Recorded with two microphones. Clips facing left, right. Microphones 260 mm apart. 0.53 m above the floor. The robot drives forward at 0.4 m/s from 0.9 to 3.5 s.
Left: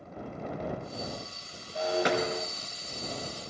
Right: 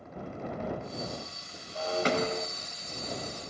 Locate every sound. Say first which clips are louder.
1.8 s breaking glass: left 1 dB; 15° left (ahead or behind), 3 m